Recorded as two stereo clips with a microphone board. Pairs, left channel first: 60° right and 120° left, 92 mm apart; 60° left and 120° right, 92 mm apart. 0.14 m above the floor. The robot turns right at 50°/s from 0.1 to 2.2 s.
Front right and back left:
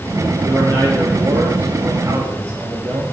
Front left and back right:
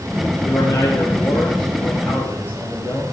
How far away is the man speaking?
About 2.5 m.